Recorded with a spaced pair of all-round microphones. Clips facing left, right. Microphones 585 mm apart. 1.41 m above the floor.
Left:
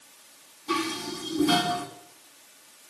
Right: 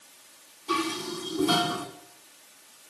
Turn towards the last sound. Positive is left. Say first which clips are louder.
# even
turn(degrees=45)  # may be behind; listen again after turning